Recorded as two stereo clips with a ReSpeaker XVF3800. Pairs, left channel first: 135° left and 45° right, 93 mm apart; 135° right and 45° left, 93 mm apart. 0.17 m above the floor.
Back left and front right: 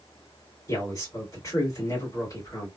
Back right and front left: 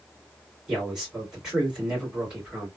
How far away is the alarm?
I don't hear an alarm.